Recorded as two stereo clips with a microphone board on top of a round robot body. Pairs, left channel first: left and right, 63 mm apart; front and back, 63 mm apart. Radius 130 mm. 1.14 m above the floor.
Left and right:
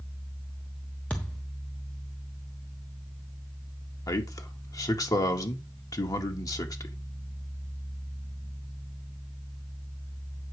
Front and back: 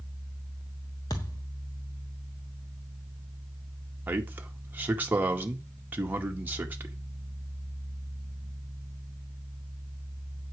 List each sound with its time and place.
1.1 s a thud: 20° left, 0.9 m
4.1 s a man speaking: 115° left, 2.0 m